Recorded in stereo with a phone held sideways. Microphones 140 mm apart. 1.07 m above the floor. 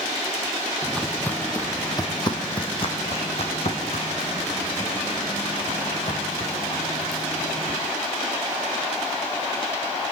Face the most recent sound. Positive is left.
turn(degrees=70)  # may be behind; listen again after turning